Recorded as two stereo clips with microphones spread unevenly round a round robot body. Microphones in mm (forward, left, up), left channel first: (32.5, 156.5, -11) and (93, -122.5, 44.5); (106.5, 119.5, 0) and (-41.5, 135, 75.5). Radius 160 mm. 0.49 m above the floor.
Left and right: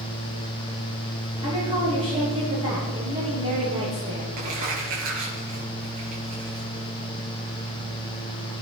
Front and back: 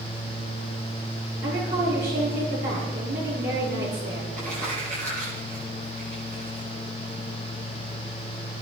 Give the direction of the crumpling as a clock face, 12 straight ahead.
4 o'clock.